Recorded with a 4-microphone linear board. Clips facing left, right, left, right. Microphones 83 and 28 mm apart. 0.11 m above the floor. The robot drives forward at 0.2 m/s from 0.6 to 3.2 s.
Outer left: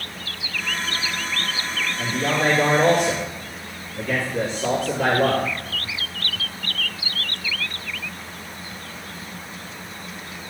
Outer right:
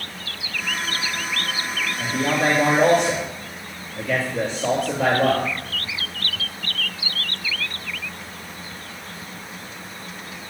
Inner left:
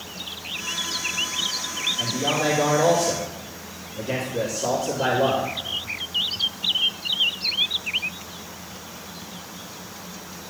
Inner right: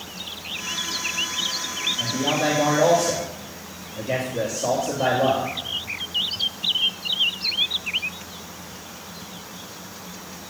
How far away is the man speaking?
About 2 m.